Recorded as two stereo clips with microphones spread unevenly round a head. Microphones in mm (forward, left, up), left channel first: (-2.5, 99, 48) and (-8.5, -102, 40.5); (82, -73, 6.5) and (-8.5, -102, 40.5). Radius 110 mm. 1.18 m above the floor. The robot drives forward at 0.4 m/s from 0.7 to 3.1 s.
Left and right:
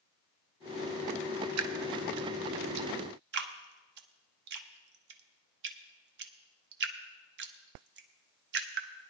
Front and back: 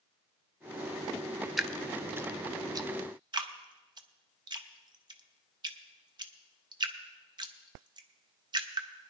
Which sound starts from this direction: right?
Dripping, at 1.6 s.